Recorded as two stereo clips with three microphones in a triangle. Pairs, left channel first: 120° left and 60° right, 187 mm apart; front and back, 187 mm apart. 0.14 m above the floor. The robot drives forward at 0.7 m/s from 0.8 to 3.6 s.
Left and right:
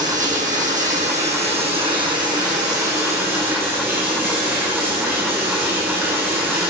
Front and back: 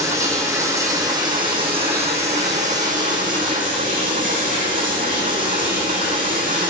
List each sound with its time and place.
0.0 s running water: 105° right, 2.5 m; by 6.7 s 135° right, 3.5 m